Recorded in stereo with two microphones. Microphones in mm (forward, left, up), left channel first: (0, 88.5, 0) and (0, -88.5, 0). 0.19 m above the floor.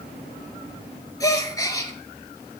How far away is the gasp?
About 1.1 m.